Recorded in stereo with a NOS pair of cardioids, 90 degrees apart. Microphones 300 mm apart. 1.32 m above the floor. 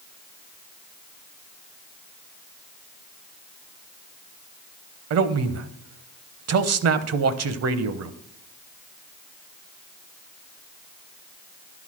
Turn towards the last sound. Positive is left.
turn(degrees=-60)